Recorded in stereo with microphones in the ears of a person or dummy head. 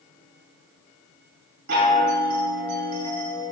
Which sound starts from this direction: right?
A chime, at 1.7 s.